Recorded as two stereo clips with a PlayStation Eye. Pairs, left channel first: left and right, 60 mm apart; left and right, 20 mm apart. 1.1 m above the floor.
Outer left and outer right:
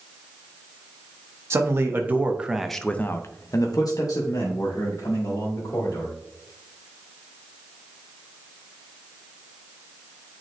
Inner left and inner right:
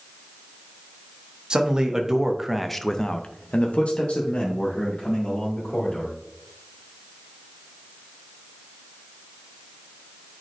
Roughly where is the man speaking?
Right.